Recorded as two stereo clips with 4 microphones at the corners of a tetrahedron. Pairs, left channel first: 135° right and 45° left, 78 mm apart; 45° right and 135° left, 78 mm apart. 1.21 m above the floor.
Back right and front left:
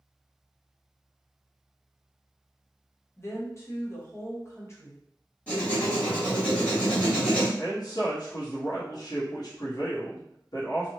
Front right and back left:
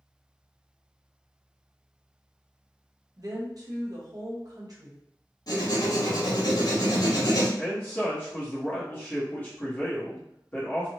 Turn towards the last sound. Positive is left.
turn(degrees=-110)